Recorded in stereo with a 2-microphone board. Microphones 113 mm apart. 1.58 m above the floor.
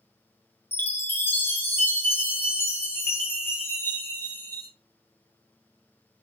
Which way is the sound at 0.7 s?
20° left (ahead or behind).